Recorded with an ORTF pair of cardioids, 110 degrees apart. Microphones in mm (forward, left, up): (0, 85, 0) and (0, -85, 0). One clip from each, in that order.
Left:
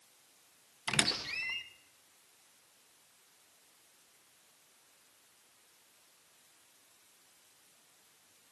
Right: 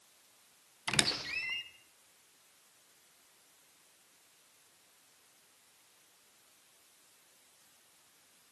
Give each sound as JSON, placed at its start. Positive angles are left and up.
{"t": 0.9, "sound": "a squeak", "azimuth_deg": 0, "distance_m": 0.7}